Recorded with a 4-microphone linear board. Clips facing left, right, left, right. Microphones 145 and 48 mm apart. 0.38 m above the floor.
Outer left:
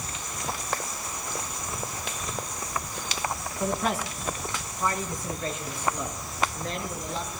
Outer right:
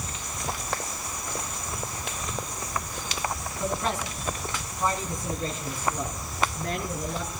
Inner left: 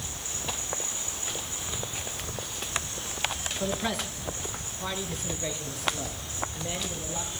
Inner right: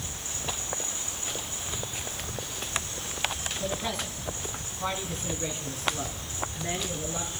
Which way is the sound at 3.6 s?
15° left (ahead or behind).